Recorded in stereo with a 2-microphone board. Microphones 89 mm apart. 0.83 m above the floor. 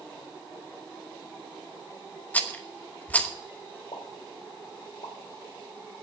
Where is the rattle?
15° left (ahead or behind), 1.0 m.